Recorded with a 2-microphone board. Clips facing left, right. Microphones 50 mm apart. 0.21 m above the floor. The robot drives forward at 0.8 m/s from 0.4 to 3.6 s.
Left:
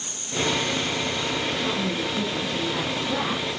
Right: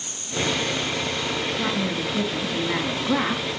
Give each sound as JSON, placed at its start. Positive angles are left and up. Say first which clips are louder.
{"t": 1.6, "sound": "a woman speaking", "louder": "right 1 dB", "side_deg": -65, "distance_m": 3.5}